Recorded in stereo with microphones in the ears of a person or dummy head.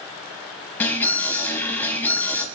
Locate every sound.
0.8 s an alarm: 10° left (ahead or behind), 3.5 m